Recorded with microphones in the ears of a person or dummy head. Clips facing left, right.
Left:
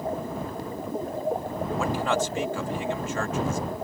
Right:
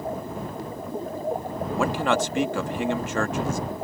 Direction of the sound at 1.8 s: 55° right (ahead or behind).